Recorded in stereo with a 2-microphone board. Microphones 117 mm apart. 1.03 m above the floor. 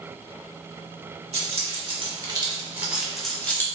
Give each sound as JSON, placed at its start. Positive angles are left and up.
{"t": 1.3, "sound": "keys jangling", "side_deg": -60, "distance_m": 1.2}